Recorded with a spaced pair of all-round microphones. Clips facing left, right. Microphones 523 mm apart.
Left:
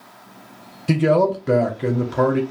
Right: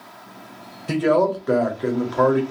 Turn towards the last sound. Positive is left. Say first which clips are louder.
# left 1 dB
turn(degrees=50)  # may be behind; listen again after turning